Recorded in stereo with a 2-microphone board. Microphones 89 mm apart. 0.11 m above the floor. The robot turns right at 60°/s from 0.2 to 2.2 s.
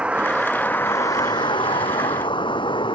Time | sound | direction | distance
0.0 | a vehicle | 15° right | ?